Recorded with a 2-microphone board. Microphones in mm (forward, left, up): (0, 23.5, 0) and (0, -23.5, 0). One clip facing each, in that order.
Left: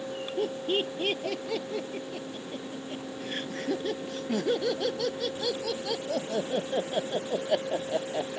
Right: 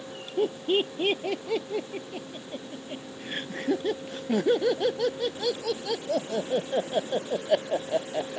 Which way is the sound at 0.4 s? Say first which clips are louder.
Right 4 dB; 15° right (ahead or behind).